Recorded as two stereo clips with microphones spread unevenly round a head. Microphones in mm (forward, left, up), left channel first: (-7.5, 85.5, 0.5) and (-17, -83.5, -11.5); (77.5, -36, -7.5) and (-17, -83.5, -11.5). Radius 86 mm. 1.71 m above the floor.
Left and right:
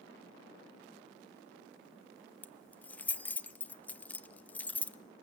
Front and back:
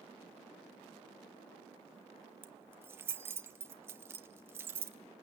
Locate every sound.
2.4 s keys jangling: 155° left, 0.6 m